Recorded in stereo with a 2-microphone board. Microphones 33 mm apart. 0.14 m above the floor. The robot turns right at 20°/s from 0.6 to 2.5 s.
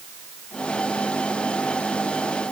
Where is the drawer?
No drawer in this recording.